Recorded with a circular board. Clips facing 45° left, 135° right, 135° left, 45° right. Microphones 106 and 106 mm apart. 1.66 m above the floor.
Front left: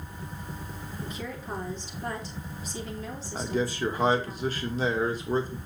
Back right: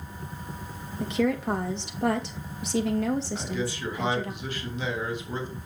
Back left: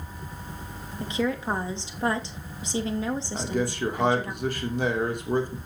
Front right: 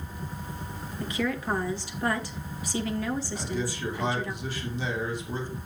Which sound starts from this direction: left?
A man speaking, at 3.3 s.